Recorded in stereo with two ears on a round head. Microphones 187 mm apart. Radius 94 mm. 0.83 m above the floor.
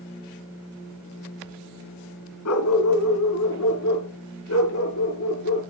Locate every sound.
2.5 s a dog barking: 80° left, 2 m; by 5.6 s 75° left (ahead or behind), 4.5 m